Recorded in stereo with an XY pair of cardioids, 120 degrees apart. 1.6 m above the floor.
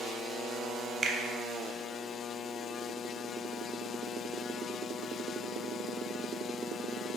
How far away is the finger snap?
About 0.6 m.